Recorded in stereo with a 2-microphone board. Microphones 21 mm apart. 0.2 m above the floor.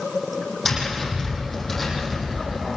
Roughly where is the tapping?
Centre.